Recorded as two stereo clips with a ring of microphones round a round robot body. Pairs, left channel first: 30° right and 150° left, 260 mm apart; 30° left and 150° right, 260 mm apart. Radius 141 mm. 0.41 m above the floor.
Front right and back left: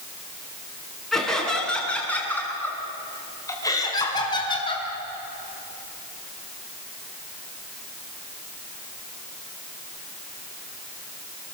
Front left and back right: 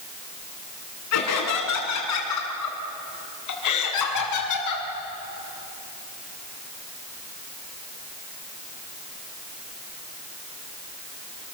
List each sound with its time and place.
1.1 s laughter: 60° left, 7 m; by 4.9 s 40° left, 5.5 m